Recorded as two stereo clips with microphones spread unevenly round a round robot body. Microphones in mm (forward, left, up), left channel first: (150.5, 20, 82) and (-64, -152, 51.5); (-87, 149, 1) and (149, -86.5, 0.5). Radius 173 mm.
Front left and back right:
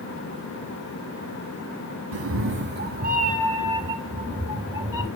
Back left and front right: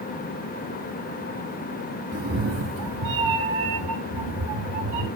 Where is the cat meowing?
115° right, 1.3 m; by 5.1 s 65° right, 4.5 m.